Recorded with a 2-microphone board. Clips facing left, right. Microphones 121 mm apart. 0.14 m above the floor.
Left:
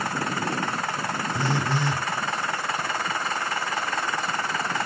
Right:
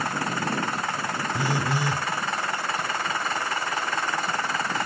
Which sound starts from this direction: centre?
A phone buzzing, at 1.3 s.